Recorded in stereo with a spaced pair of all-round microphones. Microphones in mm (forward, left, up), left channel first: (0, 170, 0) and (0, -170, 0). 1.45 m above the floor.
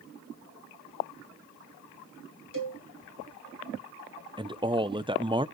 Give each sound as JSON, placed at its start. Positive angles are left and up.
{"t": 2.5, "sound": "a cowbell", "side_deg": 70, "distance_m": 6.5}
{"t": 4.4, "sound": "a man speaking", "side_deg": -15, "distance_m": 0.8}